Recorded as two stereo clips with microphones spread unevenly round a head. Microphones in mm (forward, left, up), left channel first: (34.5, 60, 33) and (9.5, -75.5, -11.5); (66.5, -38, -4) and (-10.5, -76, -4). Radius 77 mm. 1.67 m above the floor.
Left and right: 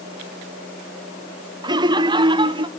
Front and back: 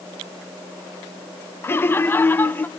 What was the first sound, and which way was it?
Laughter, 35° right.